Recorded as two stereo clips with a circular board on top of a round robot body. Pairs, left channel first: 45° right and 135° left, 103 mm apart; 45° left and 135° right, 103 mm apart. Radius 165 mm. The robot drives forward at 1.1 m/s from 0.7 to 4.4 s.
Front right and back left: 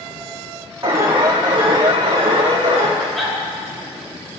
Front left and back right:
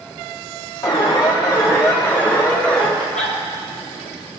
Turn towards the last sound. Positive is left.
turn(degrees=155)